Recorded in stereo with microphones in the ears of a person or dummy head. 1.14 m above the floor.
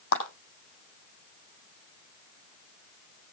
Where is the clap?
70° left (ahead or behind), 8.5 m.